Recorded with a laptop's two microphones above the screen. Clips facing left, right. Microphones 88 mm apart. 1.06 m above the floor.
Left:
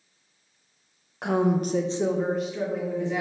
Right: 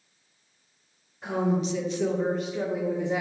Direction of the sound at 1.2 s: 75° left (ahead or behind).